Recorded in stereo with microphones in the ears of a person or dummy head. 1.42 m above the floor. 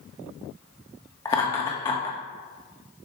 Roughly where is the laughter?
Left.